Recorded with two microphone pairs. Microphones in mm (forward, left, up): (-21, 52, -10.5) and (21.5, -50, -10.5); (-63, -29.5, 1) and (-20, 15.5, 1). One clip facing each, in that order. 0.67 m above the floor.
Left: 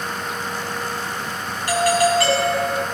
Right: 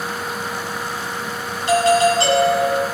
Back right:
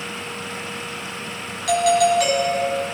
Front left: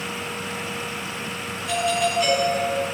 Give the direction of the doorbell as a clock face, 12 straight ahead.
4 o'clock.